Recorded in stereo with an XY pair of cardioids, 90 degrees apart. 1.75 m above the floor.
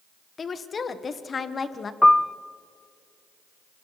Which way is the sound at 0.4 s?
45° left.